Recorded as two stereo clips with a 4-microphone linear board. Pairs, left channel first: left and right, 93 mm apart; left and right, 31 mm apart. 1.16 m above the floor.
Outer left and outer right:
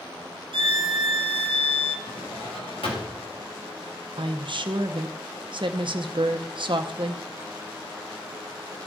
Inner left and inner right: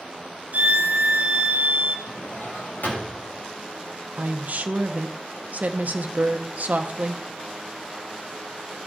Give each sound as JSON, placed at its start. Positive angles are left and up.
{"t": 0.5, "sound": "a violin", "side_deg": -65, "distance_m": 0.6}
{"t": 2.1, "sound": "a drawer", "side_deg": 80, "distance_m": 3.5}
{"t": 4.2, "sound": "a woman speaking", "side_deg": -60, "distance_m": 0.7}